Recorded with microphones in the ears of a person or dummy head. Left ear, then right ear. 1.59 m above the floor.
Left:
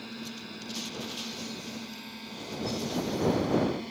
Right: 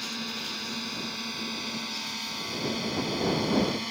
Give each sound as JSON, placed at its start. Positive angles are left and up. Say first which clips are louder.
{"t": 0.0, "sound": "a drone", "louder": "right 8 dB", "side_deg": -35}